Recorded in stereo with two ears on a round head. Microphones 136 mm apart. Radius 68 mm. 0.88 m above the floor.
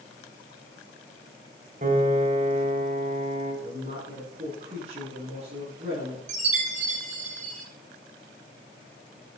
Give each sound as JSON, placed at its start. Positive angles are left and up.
{"t": 1.8, "sound": "a piano", "side_deg": -50, "distance_m": 5.5}
{"t": 3.6, "sound": "a woman speaking", "side_deg": -40, "distance_m": 9.5}
{"t": 6.3, "sound": "a chime", "side_deg": -50, "distance_m": 5.0}